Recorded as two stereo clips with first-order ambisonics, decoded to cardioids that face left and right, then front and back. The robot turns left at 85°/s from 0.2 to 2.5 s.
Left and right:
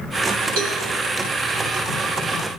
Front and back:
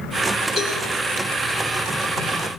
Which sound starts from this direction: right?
A cowbell, at 0.6 s.